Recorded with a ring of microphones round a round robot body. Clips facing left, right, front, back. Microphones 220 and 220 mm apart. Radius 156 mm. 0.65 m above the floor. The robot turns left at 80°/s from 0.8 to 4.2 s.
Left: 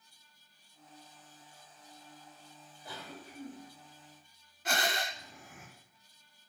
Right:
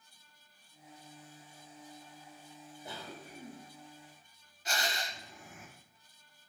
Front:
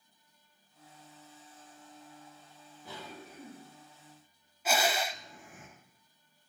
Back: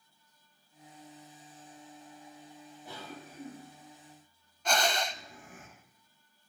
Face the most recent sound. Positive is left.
turn(degrees=80)